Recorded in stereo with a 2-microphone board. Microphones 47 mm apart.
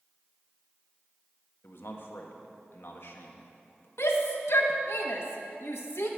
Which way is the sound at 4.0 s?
75° left (ahead or behind).